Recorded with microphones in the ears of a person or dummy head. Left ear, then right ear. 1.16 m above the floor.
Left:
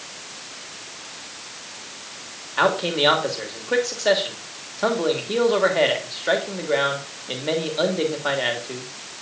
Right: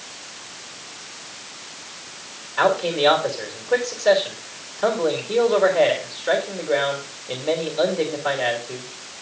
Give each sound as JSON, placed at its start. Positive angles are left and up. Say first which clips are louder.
{"t": 2.6, "sound": "a man speaking", "louder": "right 1 dB", "side_deg": 25, "distance_m": 3.0}